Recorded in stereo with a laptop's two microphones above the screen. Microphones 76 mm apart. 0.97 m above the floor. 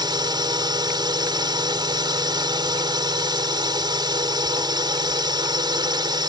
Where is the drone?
65° right (ahead or behind).